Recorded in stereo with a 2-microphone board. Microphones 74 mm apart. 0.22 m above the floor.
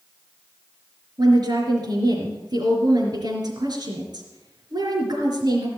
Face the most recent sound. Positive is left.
turn(degrees=-70)  # may be behind; listen again after turning